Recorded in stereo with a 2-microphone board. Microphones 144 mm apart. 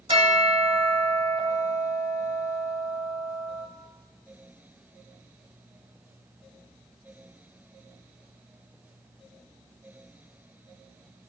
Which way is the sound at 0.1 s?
40° right (ahead or behind).